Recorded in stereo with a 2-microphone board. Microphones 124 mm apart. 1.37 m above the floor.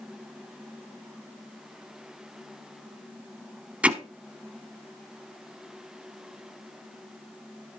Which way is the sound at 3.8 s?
10° right (ahead or behind).